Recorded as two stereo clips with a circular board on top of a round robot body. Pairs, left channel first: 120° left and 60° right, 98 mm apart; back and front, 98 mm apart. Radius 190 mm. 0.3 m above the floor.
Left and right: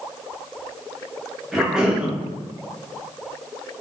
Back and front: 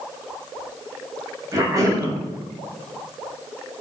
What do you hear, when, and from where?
1.5 s a cough: 20° left, 1.6 m